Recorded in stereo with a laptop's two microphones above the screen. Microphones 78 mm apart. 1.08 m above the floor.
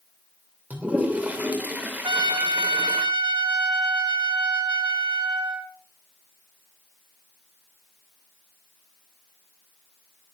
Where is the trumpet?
75° right (ahead or behind), 2 m.